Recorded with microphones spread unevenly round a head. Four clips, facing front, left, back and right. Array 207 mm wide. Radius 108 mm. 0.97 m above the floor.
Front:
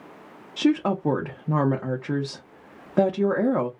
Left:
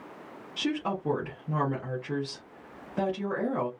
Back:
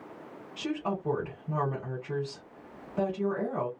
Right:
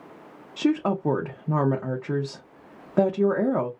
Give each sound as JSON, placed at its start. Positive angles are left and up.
{"t": 0.6, "sound": "a woman speaking", "azimuth_deg": -35, "distance_m": 0.8}